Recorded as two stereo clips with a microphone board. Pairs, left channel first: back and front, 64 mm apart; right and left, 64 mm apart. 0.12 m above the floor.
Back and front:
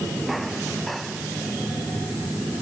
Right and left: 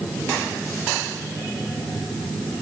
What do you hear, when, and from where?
Only background noise.